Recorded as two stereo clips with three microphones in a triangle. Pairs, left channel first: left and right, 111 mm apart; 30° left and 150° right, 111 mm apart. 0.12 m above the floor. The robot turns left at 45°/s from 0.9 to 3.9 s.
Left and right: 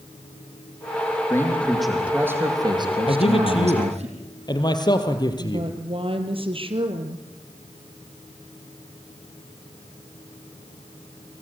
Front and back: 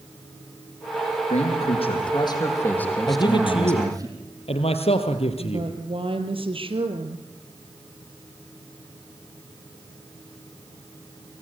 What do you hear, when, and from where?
1.3 s a man speaking: 25° left, 5.5 m; by 4.1 s 95° right, 5.5 m
3.1 s a man speaking: 80° left, 2.5 m; by 5.7 s 45° left, 2.5 m
5.4 s a woman speaking: 120° right, 3 m